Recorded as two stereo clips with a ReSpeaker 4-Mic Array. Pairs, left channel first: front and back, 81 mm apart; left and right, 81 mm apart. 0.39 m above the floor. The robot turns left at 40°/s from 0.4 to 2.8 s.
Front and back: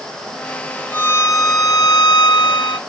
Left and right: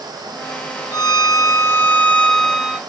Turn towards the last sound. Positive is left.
turn(degrees=-10)